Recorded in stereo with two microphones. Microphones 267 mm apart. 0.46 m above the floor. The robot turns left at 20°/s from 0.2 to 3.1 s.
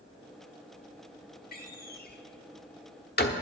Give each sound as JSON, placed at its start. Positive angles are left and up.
{"t": 1.5, "sound": "a door slam", "side_deg": 35, "distance_m": 0.9}